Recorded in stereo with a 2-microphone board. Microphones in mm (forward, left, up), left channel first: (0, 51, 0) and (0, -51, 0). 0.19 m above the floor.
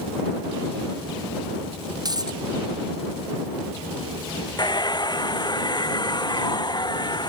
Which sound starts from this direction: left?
A hair dryer, at 4.6 s.